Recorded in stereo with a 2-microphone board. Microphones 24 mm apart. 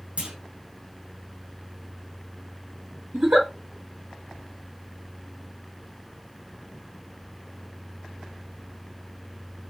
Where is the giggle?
75° right (ahead or behind), 1.6 m.